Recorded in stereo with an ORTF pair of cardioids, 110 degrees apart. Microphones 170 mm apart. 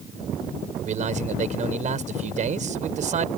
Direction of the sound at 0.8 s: 45° right.